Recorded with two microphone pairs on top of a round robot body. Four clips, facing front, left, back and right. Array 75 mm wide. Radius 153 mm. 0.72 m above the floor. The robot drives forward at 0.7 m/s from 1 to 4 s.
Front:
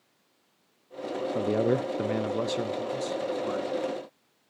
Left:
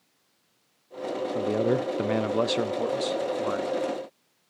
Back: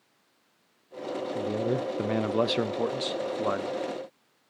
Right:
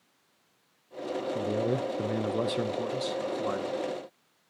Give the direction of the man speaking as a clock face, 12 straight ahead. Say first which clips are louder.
Left 5 dB, front 4 dB; 11 o'clock.